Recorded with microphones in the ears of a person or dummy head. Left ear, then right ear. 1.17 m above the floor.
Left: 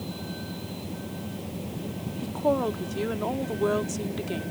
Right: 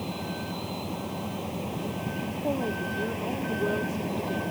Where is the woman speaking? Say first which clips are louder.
Left 6 dB; 55° left (ahead or behind).